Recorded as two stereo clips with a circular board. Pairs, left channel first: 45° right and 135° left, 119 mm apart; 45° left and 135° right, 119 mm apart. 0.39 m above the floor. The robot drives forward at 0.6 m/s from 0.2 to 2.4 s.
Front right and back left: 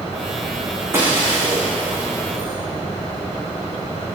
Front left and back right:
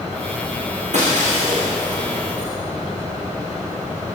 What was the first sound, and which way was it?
Breaking glass, 155° right.